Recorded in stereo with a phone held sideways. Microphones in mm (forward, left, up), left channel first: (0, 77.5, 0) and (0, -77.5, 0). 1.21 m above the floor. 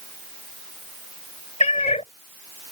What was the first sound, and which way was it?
A cat meowing, 45° left (ahead or behind).